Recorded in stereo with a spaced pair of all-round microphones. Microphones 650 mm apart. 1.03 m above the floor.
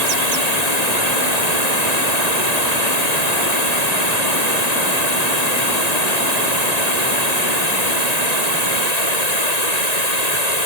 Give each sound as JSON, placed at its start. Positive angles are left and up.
{"t": 0.0, "sound": "running water", "side_deg": 80}